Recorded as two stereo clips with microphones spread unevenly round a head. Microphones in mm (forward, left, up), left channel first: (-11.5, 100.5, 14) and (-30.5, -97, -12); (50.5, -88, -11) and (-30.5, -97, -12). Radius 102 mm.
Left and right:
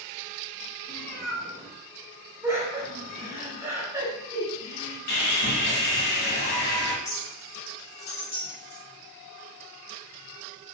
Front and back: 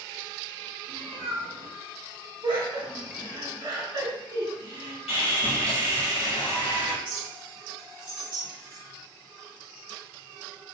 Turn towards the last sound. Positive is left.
turn(degrees=140)